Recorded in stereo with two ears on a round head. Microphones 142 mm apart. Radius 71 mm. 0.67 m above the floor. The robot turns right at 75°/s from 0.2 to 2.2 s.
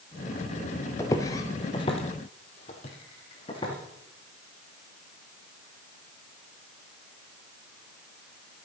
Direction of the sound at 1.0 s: 20° left (ahead or behind).